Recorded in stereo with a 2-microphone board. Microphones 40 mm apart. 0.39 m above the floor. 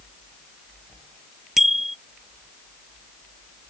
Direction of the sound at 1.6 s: 5° right (ahead or behind).